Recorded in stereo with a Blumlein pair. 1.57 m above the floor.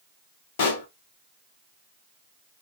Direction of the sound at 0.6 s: 50° left.